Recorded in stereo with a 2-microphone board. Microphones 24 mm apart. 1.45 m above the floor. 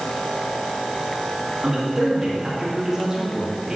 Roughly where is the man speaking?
Right.